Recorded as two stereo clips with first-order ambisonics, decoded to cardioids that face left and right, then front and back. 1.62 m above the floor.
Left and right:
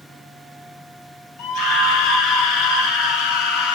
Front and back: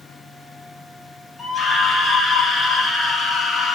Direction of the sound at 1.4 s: 95° left.